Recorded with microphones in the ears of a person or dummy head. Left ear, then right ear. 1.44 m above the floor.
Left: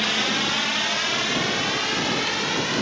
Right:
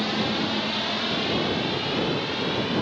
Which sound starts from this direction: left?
A drone, at 0.0 s.